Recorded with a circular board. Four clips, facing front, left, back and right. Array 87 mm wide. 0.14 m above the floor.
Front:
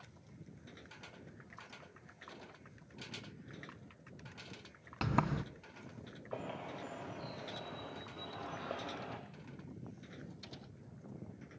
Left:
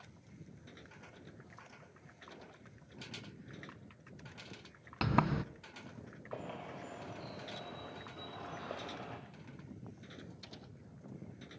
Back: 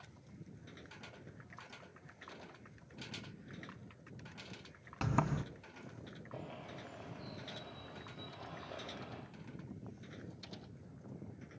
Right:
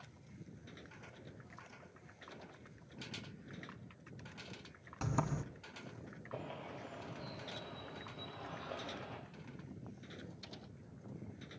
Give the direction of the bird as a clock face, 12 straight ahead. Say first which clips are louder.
Left 2 dB, front 6 dB; 11 o'clock.